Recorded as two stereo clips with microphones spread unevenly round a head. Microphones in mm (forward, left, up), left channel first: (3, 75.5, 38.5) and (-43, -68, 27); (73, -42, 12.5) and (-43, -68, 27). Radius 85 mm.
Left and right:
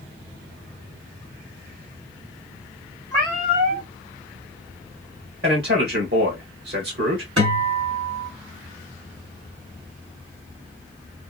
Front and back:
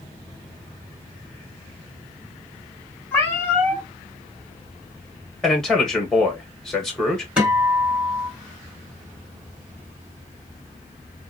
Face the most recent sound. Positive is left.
turn(degrees=-95)